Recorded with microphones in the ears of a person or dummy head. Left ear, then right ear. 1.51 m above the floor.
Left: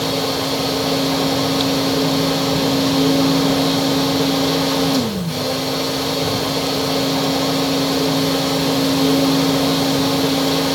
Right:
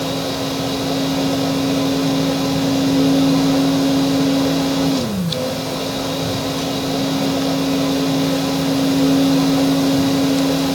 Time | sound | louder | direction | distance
0.0 | a fan | left 2 dB | 65° left (ahead or behind) | 5.5 m